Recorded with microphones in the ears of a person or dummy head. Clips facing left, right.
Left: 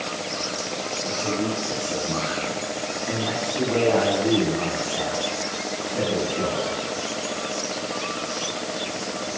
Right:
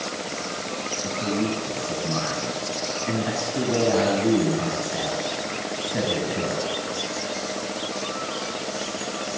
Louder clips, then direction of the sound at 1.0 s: Right 1 dB; 30° right (ahead or behind).